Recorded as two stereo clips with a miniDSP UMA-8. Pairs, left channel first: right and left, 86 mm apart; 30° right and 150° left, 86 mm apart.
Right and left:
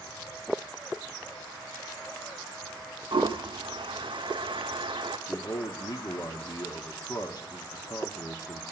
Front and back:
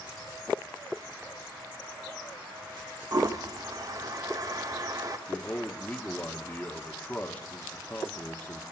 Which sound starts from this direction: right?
A man speaking, at 5.3 s.